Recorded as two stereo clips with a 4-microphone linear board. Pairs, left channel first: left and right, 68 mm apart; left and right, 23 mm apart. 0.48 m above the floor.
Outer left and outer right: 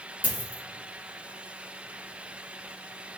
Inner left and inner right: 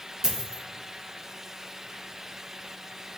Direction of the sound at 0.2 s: 20° right (ahead or behind).